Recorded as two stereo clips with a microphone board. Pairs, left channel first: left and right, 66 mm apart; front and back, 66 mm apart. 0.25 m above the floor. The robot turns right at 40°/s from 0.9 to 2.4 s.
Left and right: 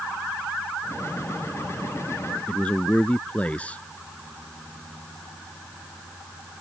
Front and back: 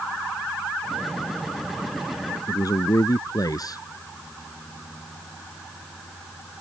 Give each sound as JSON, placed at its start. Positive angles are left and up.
{"t": 2.5, "sound": "a man speaking", "azimuth_deg": 20}